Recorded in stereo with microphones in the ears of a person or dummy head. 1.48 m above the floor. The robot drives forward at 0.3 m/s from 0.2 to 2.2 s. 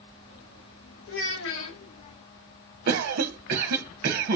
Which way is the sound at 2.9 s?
60° right (ahead or behind).